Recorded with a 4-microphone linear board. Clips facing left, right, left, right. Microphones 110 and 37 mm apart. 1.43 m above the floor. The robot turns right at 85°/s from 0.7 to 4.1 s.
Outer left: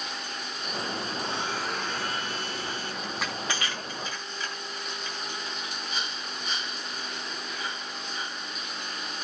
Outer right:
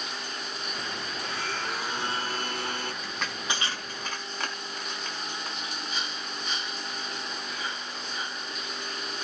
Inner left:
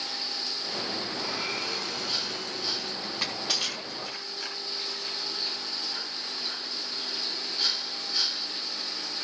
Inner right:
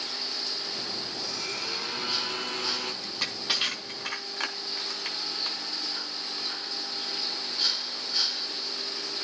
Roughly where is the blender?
Behind left.